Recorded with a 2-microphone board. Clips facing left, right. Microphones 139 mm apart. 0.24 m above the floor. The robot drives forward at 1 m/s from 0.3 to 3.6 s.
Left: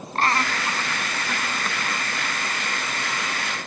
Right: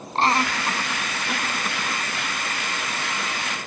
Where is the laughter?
25° right (ahead or behind), 1.5 m; by 2.0 s 10° right (ahead or behind), 3 m.